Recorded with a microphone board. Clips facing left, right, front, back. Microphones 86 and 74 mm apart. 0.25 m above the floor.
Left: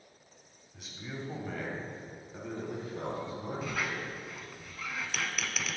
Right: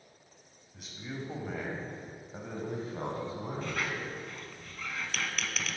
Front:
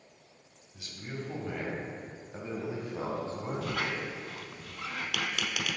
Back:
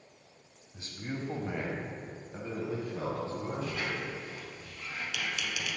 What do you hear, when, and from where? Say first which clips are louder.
0.7 s a man speaking: right 1 dB, back 2 dB; straight behind, 1.6 m; by 4.1 s 50° right, 2.5 m
3.6 s a squeak: even, front 2 dB; 5° left, 0.6 m